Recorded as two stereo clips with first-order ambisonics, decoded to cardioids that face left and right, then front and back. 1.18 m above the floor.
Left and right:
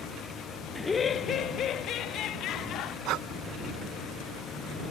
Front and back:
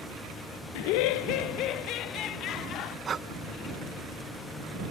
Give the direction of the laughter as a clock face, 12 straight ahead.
12 o'clock.